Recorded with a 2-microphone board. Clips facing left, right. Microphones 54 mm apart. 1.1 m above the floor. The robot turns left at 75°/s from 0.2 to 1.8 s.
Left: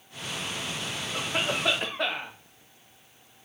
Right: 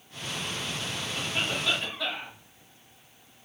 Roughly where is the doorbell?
I don't hear a doorbell.